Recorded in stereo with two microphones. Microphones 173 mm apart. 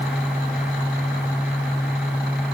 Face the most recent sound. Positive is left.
No sound to turn to.